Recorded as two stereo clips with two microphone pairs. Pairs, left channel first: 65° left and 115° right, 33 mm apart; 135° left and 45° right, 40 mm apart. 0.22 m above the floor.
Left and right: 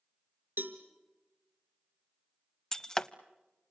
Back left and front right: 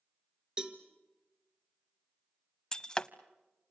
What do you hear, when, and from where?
0.6 s a cowbell: 110° right, 1.8 m
2.7 s breaking glass: 100° left, 0.6 m